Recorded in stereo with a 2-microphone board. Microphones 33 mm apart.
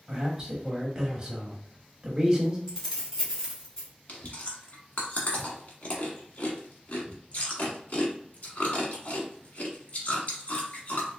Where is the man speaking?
15° right (ahead or behind), 1.0 m.